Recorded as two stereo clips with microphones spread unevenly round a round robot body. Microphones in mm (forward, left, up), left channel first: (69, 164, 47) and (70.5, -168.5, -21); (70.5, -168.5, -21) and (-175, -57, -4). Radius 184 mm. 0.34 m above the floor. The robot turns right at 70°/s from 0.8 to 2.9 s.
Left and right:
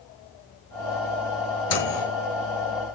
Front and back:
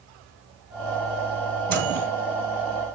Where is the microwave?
40° left, 7.5 m; by 2.1 s 70° left, 7.5 m.